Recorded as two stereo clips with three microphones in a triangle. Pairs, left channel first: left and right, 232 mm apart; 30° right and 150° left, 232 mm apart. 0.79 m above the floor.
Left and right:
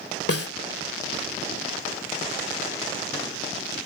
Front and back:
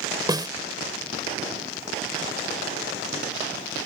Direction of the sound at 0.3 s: 80° left.